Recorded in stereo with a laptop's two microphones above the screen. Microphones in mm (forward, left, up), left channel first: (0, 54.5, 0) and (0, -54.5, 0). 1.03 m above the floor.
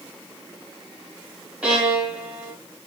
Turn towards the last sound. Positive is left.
turn(degrees=-10)  # may be behind; listen again after turning